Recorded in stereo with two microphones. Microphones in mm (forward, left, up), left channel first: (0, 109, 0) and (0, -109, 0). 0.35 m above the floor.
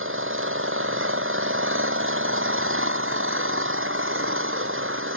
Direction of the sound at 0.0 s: 70° right (ahead or behind).